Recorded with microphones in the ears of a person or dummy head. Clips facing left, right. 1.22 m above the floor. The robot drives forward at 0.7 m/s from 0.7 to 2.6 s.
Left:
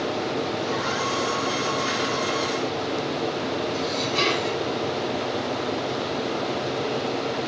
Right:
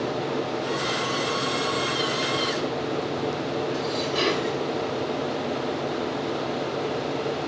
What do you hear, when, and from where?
3.7 s dishes clattering: 10° right (ahead or behind), 3.5 m